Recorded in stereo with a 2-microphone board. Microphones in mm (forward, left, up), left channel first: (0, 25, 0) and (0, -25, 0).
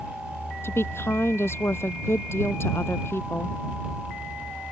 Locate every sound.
0.6 s a woman speaking: 55° left (ahead or behind)